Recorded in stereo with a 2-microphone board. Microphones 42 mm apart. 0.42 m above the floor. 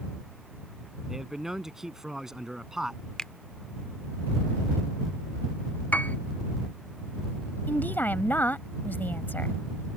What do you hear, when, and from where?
1.1 s a man speaking: 10° right (ahead or behind)
3.2 s a finger snap: 20° left (ahead or behind)
5.9 s a piano: 45° left (ahead or behind)
7.7 s a woman speaking: 55° left (ahead or behind)